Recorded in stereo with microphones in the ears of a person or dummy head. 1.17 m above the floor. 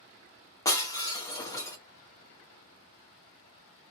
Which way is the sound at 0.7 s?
15° left (ahead or behind).